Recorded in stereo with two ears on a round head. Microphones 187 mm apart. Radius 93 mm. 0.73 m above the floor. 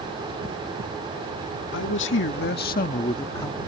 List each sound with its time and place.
1.7 s a man speaking: 60° left (ahead or behind); by 3.6 s 10° left (ahead or behind)